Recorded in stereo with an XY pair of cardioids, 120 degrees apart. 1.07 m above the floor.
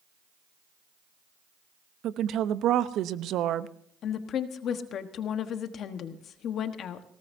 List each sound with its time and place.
2.0 s a woman speaking: 65° right, 0.8 m
4.0 s a woman speaking: 60° left, 1.3 m